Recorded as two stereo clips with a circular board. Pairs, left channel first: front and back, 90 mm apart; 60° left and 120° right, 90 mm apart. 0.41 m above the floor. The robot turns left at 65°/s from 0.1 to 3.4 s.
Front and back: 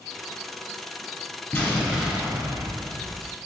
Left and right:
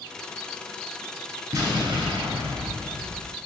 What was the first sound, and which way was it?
An explosion, 60° right.